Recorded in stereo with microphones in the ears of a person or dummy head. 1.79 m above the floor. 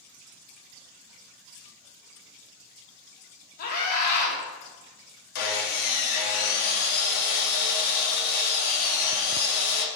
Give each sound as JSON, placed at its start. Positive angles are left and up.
{"t": 3.6, "sound": "a scream", "side_deg": 50, "distance_m": 1.2}
{"t": 5.3, "sound": "sawing", "side_deg": 55, "distance_m": 0.6}